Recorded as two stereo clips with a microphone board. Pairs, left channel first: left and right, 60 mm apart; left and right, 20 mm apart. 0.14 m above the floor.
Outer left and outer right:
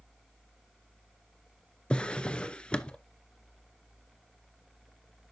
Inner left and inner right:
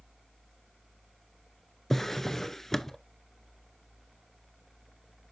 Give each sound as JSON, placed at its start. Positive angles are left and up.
{"t": 1.9, "sound": "a drawer", "side_deg": 15, "distance_m": 0.5}